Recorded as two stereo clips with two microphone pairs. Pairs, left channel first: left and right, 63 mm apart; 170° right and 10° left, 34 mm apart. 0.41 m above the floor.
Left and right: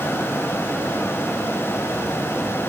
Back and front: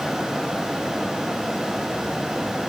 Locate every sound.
Only background noise.